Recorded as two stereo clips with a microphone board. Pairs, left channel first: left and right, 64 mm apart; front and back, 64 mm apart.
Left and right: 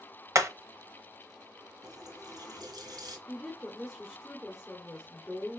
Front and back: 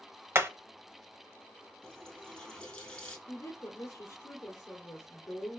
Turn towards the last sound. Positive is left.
turn(degrees=-5)